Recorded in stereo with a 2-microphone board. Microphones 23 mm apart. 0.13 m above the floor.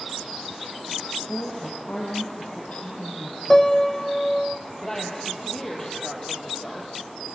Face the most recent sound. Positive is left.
turn(degrees=20)  # may be behind; listen again after turning